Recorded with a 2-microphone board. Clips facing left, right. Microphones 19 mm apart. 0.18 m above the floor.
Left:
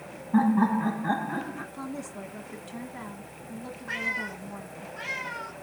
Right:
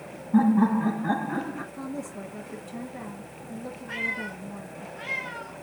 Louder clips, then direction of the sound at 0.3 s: Right 2 dB; 20° left (ahead or behind).